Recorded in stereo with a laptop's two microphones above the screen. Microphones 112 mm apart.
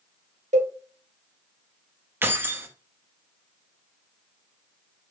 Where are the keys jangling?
20° right (ahead or behind), 0.6 m.